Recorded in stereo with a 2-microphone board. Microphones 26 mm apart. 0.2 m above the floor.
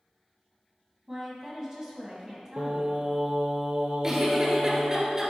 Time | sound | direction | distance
1.1 | a woman speaking | 25° right (ahead or behind) | 1.5 m
2.6 | singing | 60° right (ahead or behind) | 0.7 m
4.0 | a giggle | 20° right (ahead or behind) | 1.1 m